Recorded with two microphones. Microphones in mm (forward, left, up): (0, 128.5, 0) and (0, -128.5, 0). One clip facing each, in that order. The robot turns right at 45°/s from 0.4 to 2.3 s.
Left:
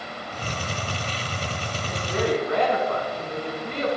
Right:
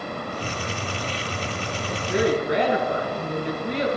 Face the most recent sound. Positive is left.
turn(degrees=-20)  # may be behind; listen again after turning